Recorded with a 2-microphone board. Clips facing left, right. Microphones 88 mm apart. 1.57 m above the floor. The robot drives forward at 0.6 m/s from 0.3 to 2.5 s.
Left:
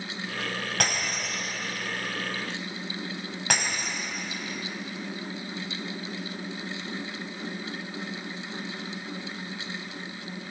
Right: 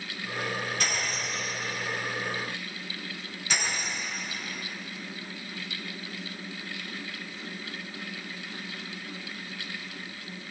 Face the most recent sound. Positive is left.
turn(degrees=70)  # may be behind; listen again after turning